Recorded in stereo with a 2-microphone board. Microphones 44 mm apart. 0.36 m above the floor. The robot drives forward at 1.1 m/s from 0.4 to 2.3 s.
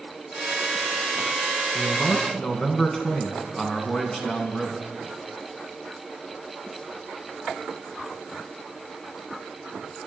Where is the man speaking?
15° left (ahead or behind), 4 m; by 4.9 s 20° left (ahead or behind), 3.5 m.